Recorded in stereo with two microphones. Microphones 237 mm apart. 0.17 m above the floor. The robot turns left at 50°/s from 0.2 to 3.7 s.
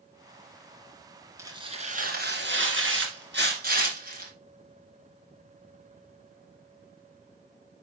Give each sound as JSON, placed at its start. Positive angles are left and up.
{"t": 1.4, "sound": "tearing paper", "azimuth_deg": -15, "distance_m": 2.5}